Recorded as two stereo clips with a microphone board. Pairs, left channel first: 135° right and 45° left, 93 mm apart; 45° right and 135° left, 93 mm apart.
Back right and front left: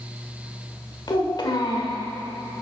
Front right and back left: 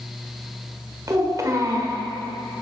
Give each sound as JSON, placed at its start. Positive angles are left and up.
{"t": 1.1, "sound": "a child speaking", "azimuth_deg": -170, "distance_m": 1.3}